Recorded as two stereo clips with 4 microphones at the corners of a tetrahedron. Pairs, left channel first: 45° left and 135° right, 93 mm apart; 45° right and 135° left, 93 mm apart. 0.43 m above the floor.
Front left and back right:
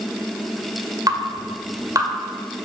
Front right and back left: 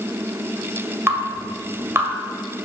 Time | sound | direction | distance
1.1 | dripping | 170° right | 1.8 m